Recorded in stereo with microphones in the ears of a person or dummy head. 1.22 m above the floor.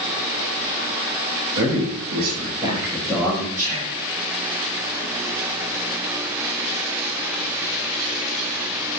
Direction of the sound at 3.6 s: 70° right (ahead or behind).